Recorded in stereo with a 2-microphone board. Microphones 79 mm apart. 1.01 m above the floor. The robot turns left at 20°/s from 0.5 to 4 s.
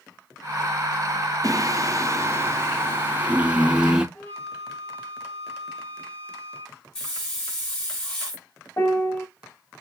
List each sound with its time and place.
1.4 s singing: 115° right, 0.6 m; by 4.0 s 165° right, 0.6 m
4.2 s a flute: 25° left (ahead or behind), 1.2 m
7.0 s a hiss: 10° left (ahead or behind), 2.5 m
8.8 s a piano: 30° left (ahead or behind), 1.1 m